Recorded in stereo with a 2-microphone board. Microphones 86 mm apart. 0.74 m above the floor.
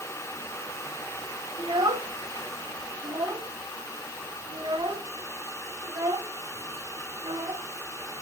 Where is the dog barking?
I don't hear a dog barking.